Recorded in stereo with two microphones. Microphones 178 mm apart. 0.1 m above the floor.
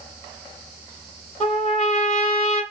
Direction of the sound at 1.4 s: 30° left (ahead or behind).